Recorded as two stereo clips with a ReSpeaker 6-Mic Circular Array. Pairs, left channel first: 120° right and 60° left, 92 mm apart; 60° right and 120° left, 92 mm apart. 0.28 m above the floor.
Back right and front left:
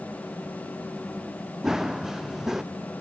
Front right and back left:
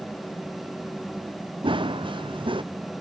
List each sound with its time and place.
1.6 s running footsteps: 145° left